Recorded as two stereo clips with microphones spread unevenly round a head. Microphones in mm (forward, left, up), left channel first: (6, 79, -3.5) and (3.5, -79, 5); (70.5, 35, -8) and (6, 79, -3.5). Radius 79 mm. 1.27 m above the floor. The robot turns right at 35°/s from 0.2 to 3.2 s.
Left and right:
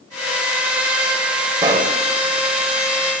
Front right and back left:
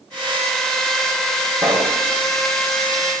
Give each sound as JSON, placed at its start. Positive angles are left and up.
{"t": 1.6, "sound": "a pop", "azimuth_deg": -155, "distance_m": 2.0}